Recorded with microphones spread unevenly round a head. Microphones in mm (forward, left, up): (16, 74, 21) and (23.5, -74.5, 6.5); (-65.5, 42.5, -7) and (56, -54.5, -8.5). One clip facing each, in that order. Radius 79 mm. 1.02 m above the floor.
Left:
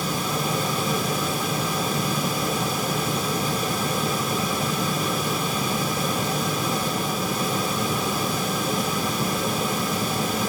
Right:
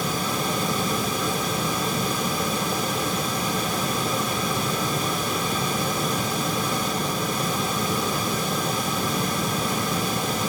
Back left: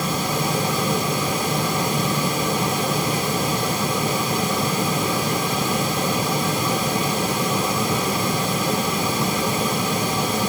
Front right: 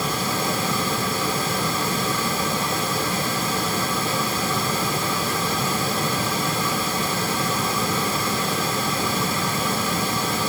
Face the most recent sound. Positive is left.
No sound to turn to.